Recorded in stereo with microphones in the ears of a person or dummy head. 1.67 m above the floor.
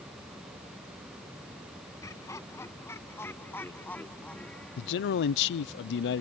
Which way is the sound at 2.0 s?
15° left (ahead or behind).